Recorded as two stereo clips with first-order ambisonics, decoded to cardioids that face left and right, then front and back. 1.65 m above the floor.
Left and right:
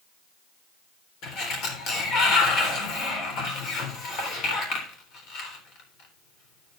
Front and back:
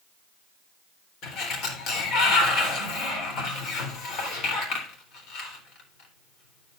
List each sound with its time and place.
1.2 s a sliding door: 45° left, 3.5 m